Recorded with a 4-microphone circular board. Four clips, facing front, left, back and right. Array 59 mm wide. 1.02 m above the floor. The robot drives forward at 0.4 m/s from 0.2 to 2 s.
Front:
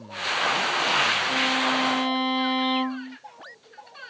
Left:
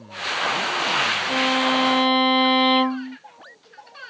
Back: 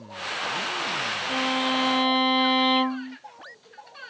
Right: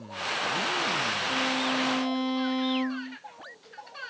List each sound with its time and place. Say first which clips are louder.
1.3 s a violin: left 8 dB, front 1 dB; 100° left; by 3.2 s 105° left